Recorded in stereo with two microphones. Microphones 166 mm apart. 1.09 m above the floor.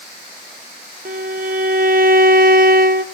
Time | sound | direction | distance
1.1 | a violin | 55° right (ahead or behind) | 1.1 m